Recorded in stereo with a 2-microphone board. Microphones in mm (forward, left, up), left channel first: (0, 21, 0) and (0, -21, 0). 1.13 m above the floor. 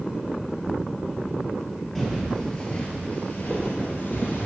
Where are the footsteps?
Centre (ahead or behind), 1.4 m; by 4.5 s 50° left (ahead or behind), 1.9 m.